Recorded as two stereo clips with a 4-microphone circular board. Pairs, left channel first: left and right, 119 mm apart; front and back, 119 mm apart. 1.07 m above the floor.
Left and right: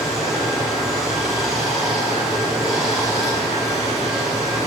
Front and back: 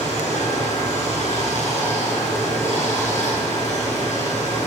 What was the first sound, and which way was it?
Running water, straight ahead.